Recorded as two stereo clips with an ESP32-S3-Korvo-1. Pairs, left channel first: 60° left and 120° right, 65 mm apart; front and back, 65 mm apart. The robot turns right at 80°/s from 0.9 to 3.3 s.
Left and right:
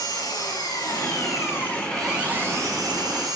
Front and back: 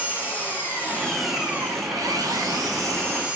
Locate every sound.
0.0 s an engine running: 65° left, 7 m; by 3.4 s 105° right, 7 m